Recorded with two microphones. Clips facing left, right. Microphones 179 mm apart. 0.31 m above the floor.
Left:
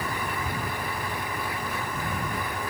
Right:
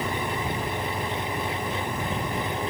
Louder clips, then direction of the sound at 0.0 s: Right 3 dB; 25° right (ahead or behind).